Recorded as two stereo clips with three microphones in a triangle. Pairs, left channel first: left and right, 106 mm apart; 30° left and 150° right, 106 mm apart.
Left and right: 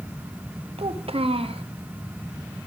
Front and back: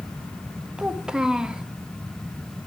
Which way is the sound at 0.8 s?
65° right.